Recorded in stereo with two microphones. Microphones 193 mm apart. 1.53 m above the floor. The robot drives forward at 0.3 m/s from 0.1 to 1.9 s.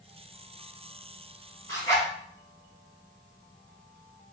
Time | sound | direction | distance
1.7 | a zipper | 15° left (ahead or behind) | 1.4 m